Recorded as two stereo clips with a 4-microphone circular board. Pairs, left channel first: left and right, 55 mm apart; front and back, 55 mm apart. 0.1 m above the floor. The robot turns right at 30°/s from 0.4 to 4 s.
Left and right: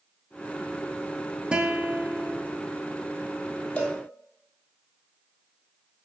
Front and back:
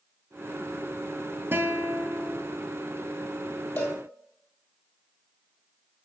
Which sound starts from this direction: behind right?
A guitar, at 1.5 s.